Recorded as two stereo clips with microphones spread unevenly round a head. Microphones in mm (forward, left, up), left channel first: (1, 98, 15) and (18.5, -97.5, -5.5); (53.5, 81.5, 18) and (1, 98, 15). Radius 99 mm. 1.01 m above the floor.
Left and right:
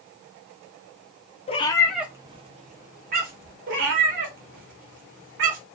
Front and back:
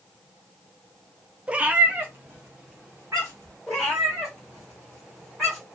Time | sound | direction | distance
1.5 | a cat meowing | 100° left | 0.5 m
3.7 | a cat meowing | 105° right | 1.0 m